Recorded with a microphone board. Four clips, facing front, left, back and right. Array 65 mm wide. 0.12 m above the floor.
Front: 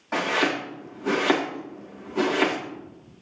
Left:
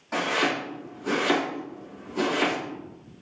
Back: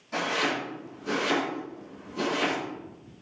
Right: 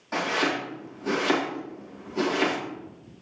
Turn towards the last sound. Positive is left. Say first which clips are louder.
# left 1 dB, front 4 dB
turn(degrees=0)